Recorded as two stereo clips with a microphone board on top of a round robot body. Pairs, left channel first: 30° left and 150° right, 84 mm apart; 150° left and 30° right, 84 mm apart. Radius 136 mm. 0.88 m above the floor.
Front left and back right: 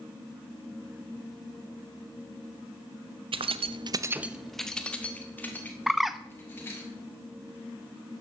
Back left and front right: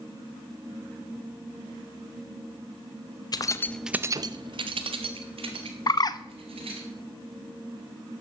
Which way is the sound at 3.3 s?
165° right.